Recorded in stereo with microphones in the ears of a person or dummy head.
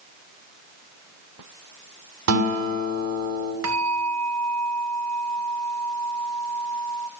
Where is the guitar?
85° right, 7 m.